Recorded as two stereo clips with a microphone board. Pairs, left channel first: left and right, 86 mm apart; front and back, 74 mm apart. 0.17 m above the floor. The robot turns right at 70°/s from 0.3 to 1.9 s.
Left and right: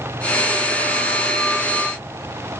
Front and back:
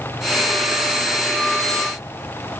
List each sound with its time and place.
Only background noise.